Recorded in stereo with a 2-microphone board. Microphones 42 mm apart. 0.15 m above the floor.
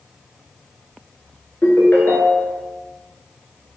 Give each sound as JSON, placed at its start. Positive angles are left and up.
{"t": 1.6, "sound": "a ringtone", "side_deg": 55, "distance_m": 1.1}